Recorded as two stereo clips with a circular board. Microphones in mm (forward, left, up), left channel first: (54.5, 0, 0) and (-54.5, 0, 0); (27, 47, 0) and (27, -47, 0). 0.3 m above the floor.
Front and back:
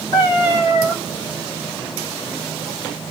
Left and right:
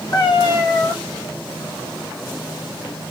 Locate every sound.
0.1 s a cat meowing: 55° left, 4 m